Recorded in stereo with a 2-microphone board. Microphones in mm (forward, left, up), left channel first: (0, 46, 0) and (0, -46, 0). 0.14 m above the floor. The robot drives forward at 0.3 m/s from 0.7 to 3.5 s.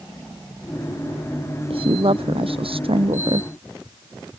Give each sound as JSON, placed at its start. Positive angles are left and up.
{"t": 1.7, "sound": "a woman speaking", "side_deg": -75}